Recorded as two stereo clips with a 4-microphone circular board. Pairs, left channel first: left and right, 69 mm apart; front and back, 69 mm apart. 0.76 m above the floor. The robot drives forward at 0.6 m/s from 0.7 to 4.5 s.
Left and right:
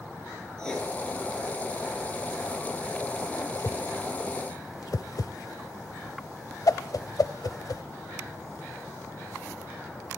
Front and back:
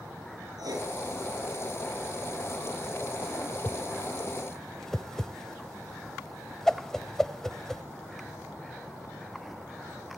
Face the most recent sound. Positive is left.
turn(degrees=80)